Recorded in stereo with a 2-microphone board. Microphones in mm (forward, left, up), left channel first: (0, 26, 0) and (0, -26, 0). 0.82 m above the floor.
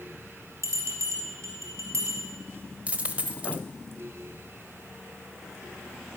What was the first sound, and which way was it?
A bell, 65° right (ahead or behind).